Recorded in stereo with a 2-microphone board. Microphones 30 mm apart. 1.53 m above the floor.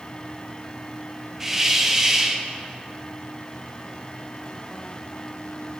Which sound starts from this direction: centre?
A hiss, at 1.4 s.